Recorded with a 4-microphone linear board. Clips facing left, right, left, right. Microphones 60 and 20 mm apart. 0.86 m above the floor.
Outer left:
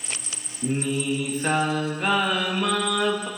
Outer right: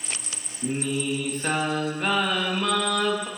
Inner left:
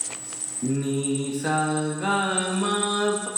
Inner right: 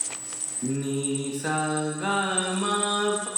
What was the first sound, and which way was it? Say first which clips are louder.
Singing: outer left 2 dB, inner left 3 dB; 5° left (ahead or behind).